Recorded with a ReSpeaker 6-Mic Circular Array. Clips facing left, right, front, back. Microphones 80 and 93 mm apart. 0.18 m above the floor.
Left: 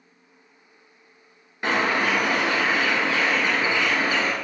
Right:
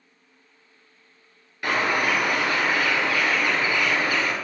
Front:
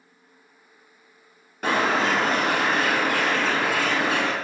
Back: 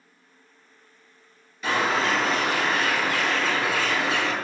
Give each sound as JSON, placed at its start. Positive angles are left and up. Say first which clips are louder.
{"t": 1.6, "sound": "a bird", "louder": "left 1 dB, front 2 dB", "azimuth_deg": 25, "distance_m": 1.5}